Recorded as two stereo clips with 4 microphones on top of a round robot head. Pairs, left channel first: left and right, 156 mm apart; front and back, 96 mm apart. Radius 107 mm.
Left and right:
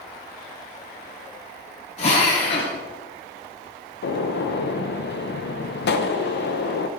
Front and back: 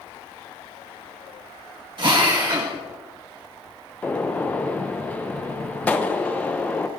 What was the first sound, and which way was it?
A drill, 145° left.